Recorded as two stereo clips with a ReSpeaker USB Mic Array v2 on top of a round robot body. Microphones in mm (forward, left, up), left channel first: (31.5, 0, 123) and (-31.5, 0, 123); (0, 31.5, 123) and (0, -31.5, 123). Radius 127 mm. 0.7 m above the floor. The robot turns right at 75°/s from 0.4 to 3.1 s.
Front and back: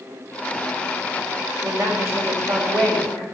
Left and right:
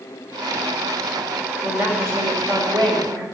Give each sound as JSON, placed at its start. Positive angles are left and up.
{"t": 1.6, "sound": "a woman speaking", "azimuth_deg": -175, "distance_m": 3.5}